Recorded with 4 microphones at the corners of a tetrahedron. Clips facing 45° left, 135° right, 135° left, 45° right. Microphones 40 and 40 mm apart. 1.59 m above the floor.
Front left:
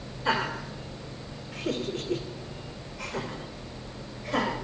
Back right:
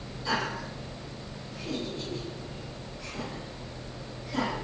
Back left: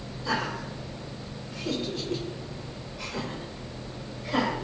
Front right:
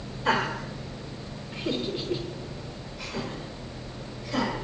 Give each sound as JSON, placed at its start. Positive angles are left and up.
{"t": 0.2, "sound": "laughter", "azimuth_deg": -10, "distance_m": 5.0}